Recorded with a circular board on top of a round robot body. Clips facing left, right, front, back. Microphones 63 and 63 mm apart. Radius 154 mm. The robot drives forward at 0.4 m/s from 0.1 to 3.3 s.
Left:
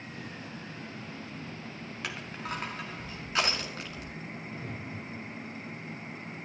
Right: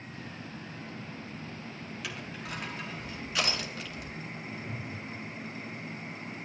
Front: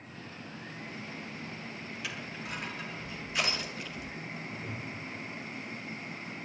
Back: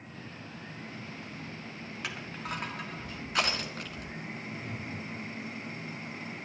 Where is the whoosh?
85° left, 8.5 m.